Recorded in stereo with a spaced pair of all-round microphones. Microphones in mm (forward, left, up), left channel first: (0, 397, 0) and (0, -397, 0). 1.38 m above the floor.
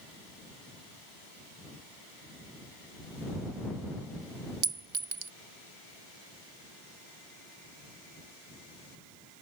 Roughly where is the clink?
Right.